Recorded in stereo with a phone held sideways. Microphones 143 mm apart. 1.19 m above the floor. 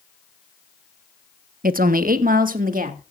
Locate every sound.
1.6 s a woman speaking: 80° right, 0.8 m; by 3.1 s 75° right (ahead or behind), 2.5 m